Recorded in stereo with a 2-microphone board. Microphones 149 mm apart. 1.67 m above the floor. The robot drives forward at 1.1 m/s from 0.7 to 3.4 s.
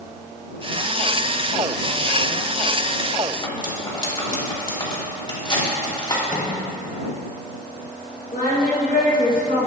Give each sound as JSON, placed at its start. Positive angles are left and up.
{"t": 3.4, "sound": "cutlery clinking", "side_deg": 30, "distance_m": 2.5}
{"t": 6.3, "sound": "a microwave", "side_deg": 65, "distance_m": 2.0}
{"t": 8.3, "sound": "singing", "side_deg": 65, "distance_m": 3.0}